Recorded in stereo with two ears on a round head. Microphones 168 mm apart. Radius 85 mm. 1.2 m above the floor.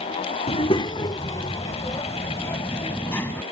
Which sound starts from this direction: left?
A child speaking, at 0.5 s.